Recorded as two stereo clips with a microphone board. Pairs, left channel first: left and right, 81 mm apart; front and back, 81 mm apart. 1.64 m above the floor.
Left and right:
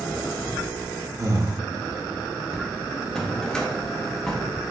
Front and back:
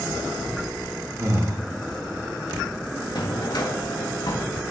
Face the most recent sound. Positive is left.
turn(degrees=10)